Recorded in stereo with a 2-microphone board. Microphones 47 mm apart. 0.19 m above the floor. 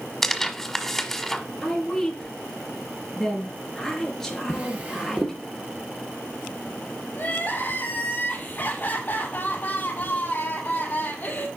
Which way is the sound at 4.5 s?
30° right (ahead or behind).